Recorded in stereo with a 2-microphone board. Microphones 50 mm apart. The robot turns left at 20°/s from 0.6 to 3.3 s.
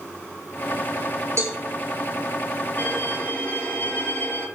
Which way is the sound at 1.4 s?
60° right (ahead or behind).